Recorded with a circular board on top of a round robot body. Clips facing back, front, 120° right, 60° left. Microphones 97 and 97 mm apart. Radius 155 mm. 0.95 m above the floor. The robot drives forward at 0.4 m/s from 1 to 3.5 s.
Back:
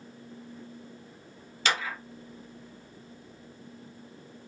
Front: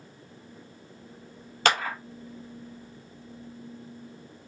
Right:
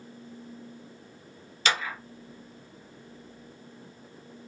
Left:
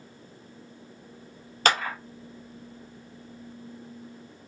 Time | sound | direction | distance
1.6 | a clap | 30° left | 0.7 m